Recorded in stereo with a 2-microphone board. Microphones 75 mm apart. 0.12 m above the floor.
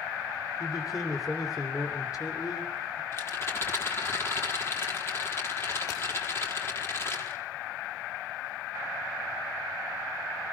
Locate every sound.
0.6 s a man speaking: 50° left (ahead or behind), 6.5 m
3.1 s a rattle: 35° left (ahead or behind), 4 m